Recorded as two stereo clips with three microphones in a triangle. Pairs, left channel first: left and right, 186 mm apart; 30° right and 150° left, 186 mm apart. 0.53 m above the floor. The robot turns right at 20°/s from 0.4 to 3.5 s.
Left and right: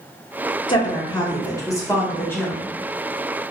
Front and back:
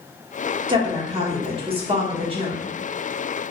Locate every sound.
0.7 s a woman speaking: 120° left, 0.9 m; by 2.6 s 160° left, 0.9 m